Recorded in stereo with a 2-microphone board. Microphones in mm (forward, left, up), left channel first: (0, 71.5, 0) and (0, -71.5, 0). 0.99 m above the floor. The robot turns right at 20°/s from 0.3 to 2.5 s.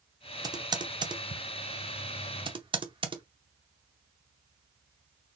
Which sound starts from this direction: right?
Typing on a keyboard, at 0.4 s.